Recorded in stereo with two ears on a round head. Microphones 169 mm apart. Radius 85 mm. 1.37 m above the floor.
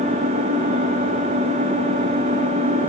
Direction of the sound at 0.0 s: 35° right (ahead or behind).